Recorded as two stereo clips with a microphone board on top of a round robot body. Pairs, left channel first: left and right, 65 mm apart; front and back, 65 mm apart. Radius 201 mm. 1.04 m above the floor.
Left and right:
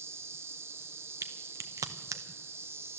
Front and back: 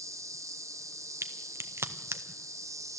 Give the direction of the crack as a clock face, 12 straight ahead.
4 o'clock.